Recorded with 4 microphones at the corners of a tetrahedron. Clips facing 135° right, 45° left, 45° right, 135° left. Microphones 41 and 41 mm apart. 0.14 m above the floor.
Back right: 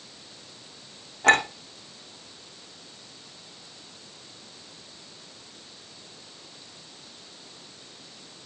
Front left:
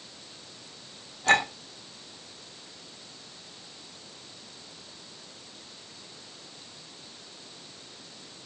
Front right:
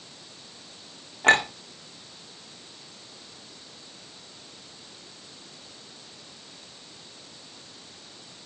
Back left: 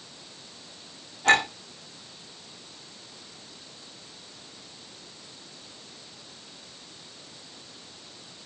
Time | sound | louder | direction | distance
1.2 | a clink | back right 3 dB, front right 1 dB | 95° right | 4.5 m